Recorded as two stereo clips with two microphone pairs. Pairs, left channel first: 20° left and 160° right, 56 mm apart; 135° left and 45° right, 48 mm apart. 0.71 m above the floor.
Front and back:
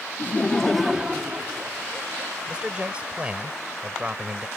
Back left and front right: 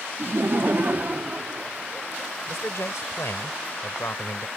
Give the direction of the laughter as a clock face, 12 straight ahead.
1 o'clock.